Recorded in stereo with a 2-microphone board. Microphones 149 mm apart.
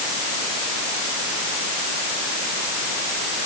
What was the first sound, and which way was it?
Only background noise.